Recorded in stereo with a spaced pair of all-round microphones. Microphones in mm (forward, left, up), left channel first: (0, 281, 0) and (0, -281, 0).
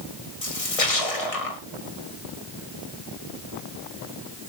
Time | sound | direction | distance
0.4 | a splash | 75° left (ahead or behind) | 2 m